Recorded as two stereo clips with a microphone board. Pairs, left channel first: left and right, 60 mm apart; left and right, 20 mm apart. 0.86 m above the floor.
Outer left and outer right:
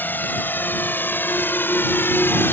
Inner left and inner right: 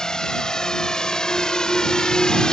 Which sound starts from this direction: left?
A drone, at 0.0 s.